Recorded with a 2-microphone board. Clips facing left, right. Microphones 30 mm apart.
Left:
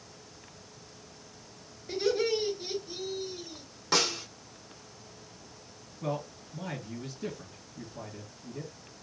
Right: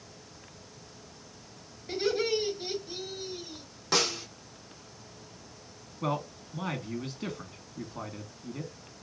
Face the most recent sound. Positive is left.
turn(degrees=-70)  # may be behind; listen again after turning